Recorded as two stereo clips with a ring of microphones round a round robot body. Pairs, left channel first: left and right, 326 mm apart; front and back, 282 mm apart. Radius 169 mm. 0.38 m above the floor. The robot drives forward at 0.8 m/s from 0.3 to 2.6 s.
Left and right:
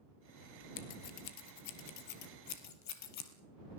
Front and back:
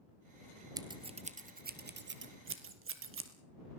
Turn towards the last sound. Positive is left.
turn(degrees=135)